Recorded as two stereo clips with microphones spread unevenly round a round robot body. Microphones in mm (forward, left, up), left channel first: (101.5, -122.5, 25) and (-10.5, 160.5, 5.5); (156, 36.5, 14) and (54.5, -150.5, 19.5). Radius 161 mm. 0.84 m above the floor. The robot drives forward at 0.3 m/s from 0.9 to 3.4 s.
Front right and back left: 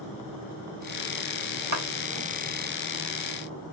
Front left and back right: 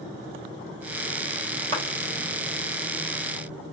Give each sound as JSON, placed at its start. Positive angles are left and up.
{"t": 1.7, "sound": "a clap", "azimuth_deg": 145, "distance_m": 3.0}